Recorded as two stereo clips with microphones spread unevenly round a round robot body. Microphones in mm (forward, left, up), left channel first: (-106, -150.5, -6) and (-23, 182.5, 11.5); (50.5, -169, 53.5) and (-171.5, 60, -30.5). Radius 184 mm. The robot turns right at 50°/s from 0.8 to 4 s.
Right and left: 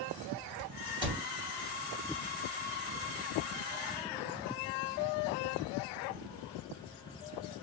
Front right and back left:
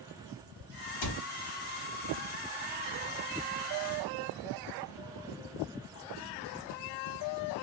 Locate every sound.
1.0 s a cupboard door: 5° right, 1.0 m; by 1.2 s 5° left, 1.0 m